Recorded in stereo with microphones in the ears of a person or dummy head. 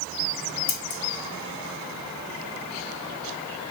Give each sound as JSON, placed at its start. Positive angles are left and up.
{"t": 0.7, "sound": "scissors", "side_deg": 55, "distance_m": 1.2}